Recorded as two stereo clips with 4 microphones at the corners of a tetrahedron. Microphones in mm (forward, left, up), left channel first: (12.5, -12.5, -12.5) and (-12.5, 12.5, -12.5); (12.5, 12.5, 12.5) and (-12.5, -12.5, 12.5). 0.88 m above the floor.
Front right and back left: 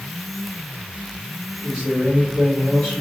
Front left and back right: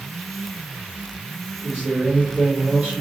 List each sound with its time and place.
1.6 s a man speaking: 130° right, 1.7 m